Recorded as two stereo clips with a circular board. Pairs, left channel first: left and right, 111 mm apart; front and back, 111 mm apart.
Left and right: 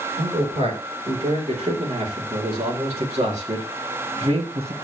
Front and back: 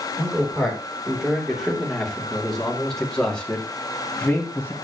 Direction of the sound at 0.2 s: 100° right.